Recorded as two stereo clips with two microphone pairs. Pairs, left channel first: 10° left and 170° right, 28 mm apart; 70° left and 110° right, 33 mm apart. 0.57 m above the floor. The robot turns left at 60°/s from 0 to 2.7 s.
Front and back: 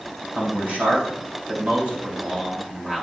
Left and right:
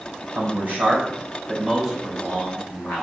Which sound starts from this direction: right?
A man speaking, at 0.3 s.